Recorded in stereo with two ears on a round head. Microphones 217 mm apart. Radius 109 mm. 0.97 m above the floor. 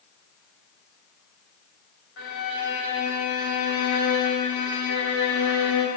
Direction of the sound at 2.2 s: 65° left (ahead or behind).